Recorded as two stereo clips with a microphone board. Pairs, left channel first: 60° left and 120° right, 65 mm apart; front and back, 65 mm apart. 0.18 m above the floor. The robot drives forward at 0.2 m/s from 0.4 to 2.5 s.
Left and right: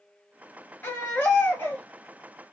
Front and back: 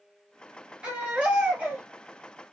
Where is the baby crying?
110° left, 1.6 m; by 1.8 s 115° left, 1.6 m.